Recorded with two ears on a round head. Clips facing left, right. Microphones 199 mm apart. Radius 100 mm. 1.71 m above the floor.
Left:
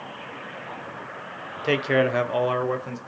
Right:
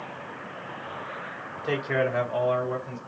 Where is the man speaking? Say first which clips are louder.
Left 5 dB; 30° left (ahead or behind), 0.7 m; by 3.0 s 75° left (ahead or behind), 1.1 m.